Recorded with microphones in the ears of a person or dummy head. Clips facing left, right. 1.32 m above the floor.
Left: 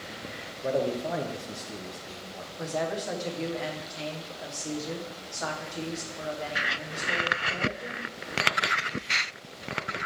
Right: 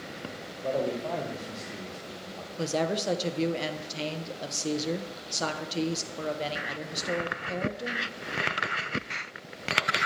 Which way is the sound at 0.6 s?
15° left (ahead or behind).